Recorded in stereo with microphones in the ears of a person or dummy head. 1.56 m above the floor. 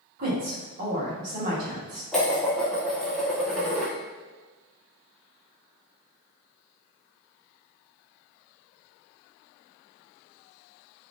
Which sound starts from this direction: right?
A woman speaking, at 0.2 s.